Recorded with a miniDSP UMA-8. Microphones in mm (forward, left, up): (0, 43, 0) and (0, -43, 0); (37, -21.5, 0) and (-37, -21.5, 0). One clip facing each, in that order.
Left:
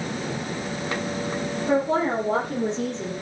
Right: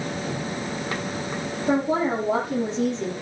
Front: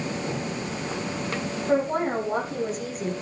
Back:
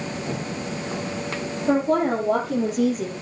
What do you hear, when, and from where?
1.7 s a woman speaking: 165° right, 6.5 m; by 3.1 s straight behind, 7.5 m